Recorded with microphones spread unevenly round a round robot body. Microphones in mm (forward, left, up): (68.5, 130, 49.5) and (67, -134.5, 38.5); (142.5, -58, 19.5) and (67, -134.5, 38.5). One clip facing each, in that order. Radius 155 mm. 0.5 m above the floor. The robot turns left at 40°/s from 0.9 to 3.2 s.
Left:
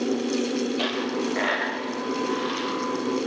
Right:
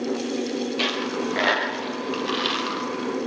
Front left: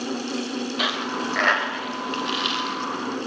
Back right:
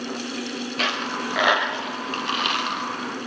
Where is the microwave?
No microwave in this recording.